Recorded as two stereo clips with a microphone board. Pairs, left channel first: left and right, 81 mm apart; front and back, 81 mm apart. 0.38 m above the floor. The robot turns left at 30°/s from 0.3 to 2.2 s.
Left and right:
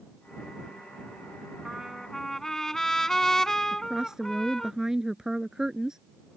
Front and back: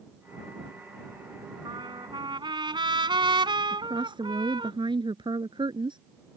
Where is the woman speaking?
170° right.